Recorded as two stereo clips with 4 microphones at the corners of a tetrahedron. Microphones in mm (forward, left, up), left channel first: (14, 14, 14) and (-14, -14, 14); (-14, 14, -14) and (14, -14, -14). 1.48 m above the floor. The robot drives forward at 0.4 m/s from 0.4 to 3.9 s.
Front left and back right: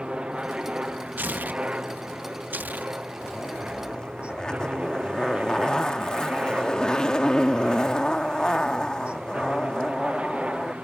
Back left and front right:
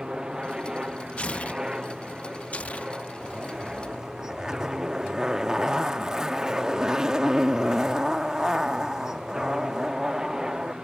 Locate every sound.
0.0 s a helicopter: 100° right; by 10.8 s 115° right
1.2 s tearing paper: 170° right; by 2.9 s 175° right
3.2 s a zipper: straight ahead; by 10.8 s 5° left